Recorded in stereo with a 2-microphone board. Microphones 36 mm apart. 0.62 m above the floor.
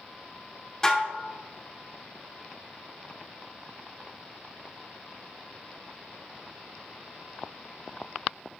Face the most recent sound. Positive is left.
turn(degrees=15)  # may be behind; listen again after turning